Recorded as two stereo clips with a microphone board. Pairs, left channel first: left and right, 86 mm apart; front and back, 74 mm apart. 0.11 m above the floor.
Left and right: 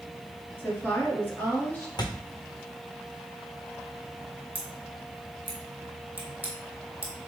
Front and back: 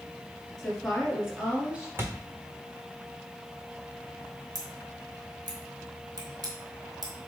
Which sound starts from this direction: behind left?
A thud, at 2.0 s.